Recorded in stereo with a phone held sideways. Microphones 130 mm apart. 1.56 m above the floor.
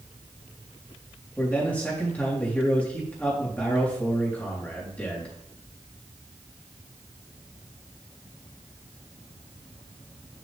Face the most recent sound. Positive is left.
turn(degrees=10)  # may be behind; listen again after turning